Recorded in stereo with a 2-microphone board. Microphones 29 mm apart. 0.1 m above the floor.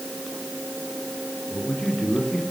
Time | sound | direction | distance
1.5 | a man speaking | 35° left (ahead or behind) | 8 m